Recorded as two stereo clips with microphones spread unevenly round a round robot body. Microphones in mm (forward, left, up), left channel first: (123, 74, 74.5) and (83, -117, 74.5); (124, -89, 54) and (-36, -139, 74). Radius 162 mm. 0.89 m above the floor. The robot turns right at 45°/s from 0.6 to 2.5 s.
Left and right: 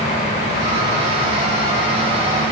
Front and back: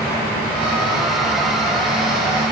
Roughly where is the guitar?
I don't hear a guitar.